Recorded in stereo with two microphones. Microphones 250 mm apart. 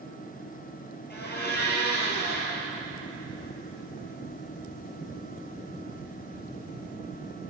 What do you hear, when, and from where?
1.1 s a blender: 45° left (ahead or behind), 1.3 m